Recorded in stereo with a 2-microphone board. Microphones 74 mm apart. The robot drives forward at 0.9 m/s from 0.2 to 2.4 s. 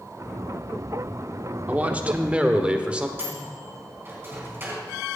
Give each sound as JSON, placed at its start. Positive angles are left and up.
{"t": 1.7, "sound": "a man speaking", "side_deg": -20, "distance_m": 0.9}
{"t": 3.2, "sound": "a microwave", "side_deg": -35, "distance_m": 4.5}